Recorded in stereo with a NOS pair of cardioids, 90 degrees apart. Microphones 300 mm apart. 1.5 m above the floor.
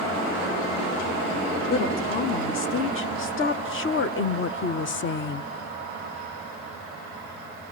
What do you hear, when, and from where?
1.7 s a woman speaking: 45° left, 3 m; by 5.4 s 40° left, 0.8 m